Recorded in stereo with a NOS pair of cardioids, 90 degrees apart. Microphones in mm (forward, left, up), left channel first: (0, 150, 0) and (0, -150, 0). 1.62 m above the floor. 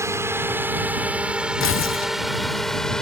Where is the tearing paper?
45° left.